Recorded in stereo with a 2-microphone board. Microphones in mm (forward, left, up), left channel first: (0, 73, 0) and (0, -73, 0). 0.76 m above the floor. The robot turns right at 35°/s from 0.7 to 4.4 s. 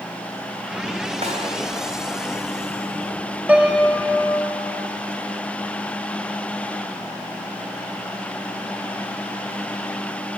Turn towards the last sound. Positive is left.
turn(degrees=20)